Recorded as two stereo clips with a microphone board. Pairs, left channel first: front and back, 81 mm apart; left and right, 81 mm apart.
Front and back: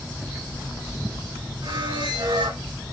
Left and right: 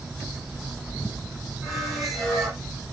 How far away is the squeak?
About 5 m.